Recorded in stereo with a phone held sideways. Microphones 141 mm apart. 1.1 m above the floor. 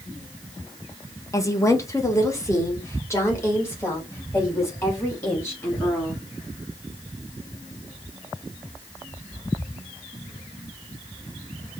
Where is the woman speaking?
20° left (ahead or behind), 0.7 m.